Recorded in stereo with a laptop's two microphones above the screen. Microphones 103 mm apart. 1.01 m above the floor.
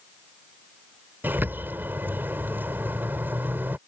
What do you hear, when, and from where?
1.2 s a bird: 20° right (ahead or behind)